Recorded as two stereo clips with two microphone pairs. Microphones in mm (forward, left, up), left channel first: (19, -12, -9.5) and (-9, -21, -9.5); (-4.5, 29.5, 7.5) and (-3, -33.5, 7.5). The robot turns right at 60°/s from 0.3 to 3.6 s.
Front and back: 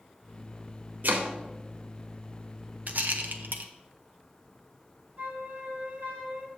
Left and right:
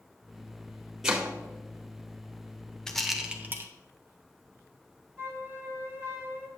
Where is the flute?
145° right, 2.5 m.